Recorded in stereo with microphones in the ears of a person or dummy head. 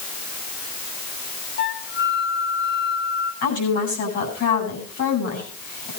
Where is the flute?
50° left (ahead or behind), 1.8 m.